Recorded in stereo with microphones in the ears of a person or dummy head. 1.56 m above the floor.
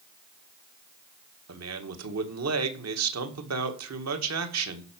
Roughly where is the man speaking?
Right.